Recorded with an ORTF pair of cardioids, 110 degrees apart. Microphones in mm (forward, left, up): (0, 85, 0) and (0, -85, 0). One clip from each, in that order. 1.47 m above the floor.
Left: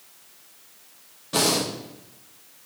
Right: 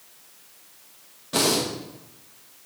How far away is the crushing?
I don't hear crushing.